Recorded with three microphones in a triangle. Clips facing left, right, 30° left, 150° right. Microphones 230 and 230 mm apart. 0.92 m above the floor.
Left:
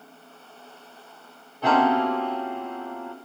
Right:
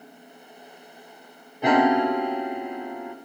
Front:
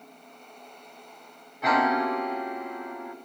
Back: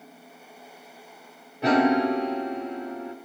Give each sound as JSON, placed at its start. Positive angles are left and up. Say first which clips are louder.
{"t": 1.6, "sound": "a piano", "louder": "right 2 dB, back 6 dB", "azimuth_deg": -145, "distance_m": 0.8}